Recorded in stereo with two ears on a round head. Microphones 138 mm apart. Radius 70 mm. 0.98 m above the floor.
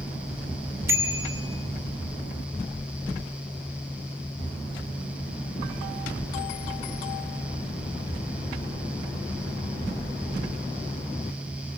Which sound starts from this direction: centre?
A bicycle bell, at 0.9 s.